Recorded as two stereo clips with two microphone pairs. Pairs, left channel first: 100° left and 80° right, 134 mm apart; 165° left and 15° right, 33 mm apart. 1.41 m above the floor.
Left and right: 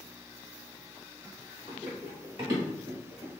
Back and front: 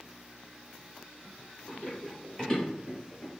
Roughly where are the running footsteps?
Behind right.